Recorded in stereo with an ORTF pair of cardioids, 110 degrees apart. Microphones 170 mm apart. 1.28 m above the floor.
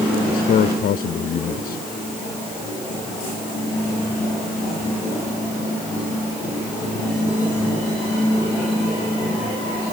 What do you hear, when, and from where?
0.3 s a man speaking: 60° left